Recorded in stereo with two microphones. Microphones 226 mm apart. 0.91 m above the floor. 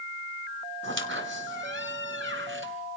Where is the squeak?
60° right (ahead or behind), 2.5 m.